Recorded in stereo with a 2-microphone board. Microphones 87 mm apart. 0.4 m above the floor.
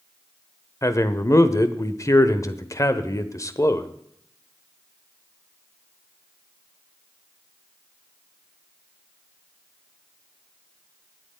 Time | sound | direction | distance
0.8 | a man speaking | 35° left (ahead or behind) | 1.0 m